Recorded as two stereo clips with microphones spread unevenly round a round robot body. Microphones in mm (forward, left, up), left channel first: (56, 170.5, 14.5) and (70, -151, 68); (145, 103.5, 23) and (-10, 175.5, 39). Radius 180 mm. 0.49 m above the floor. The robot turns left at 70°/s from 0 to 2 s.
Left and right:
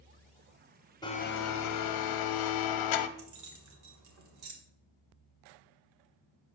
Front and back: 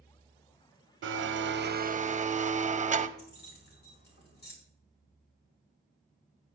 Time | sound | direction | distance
1.0 | a blender | 170° left | 0.7 m
3.2 | keys jangling | 50° right | 1.7 m